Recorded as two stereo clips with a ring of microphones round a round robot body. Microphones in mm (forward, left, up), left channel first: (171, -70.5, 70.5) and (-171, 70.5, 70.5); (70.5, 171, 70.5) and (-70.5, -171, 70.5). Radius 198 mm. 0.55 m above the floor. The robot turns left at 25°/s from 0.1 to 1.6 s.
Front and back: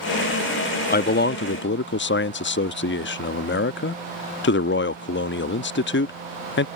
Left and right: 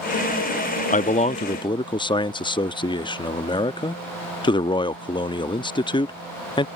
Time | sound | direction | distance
0.9 | a man speaking | 20° left | ?